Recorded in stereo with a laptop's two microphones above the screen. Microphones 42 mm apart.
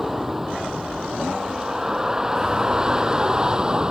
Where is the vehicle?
10° right (ahead or behind); by 3.9 s 20° right (ahead or behind).